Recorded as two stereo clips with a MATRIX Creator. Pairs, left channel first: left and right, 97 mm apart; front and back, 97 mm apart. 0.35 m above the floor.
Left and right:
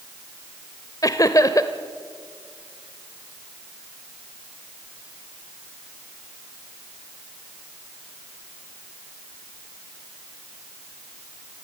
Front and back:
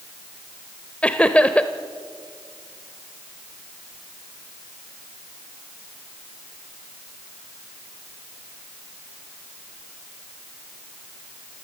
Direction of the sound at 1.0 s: 70° left.